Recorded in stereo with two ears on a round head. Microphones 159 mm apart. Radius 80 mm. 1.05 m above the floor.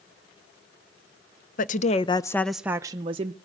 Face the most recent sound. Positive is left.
turn(degrees=-35)  # may be behind; listen again after turning